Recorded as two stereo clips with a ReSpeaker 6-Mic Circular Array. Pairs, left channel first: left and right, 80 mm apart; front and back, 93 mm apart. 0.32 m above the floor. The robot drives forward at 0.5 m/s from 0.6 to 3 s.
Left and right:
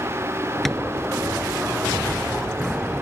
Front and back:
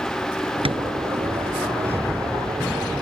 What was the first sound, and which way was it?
Tapping, straight behind.